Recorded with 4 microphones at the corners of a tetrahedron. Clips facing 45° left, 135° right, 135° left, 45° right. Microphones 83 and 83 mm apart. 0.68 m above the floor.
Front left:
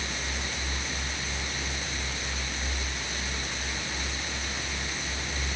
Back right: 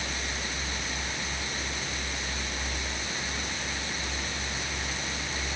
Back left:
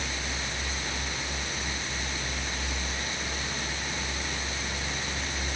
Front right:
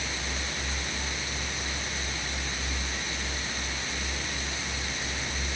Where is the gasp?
No gasp in this recording.